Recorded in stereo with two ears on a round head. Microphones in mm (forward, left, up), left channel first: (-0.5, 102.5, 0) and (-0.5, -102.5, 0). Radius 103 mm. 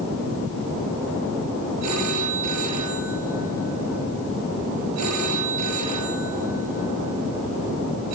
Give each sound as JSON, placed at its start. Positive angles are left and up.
{"t": 1.8, "sound": "a phone ringing", "side_deg": -85, "distance_m": 7.5}